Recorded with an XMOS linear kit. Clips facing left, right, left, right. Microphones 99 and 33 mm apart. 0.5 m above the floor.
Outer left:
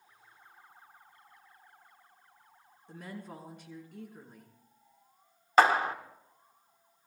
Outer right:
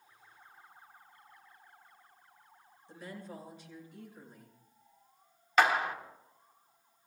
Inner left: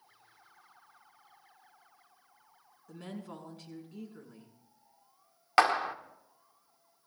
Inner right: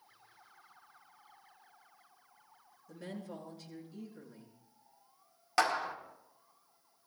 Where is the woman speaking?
60° left (ahead or behind), 6 m.